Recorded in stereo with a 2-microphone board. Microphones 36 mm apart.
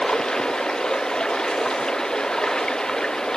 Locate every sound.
0.0 s running water: 15° left (ahead or behind)